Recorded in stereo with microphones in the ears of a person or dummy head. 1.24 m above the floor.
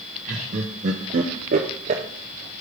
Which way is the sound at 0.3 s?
40° right (ahead or behind).